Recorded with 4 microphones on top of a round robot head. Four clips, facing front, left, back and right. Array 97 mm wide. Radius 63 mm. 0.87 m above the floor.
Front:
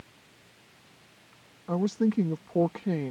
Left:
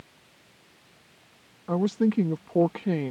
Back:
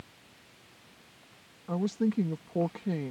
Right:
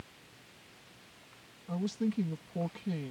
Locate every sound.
1.7 s a woman speaking: 75° left